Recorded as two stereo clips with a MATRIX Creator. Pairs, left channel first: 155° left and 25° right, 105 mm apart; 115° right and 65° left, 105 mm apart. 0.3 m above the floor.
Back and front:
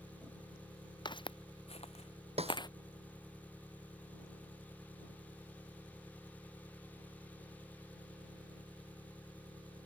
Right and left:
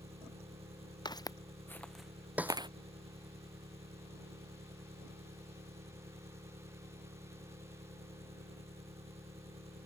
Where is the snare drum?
10° right.